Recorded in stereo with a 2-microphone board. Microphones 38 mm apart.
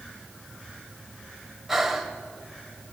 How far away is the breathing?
About 1.9 m.